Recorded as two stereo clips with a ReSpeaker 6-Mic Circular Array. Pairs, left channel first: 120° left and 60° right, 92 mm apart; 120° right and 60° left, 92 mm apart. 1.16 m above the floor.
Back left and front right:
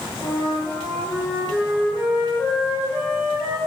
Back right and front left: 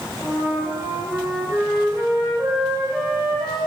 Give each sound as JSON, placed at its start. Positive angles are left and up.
{"t": 0.2, "sound": "a flute", "azimuth_deg": 10, "distance_m": 2.0}